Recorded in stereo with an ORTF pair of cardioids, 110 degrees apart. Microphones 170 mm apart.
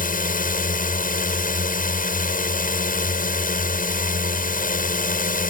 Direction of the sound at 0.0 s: 55° left.